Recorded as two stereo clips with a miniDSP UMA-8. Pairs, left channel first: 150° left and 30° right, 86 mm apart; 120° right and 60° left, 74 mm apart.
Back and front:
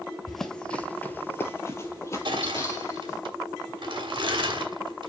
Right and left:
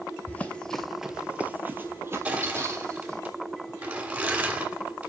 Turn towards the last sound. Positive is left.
turn(degrees=-5)